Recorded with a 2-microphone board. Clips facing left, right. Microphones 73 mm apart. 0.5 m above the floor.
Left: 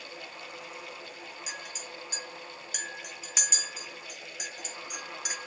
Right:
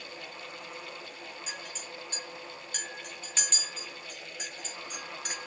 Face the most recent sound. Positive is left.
turn(degrees=10)  # may be behind; listen again after turning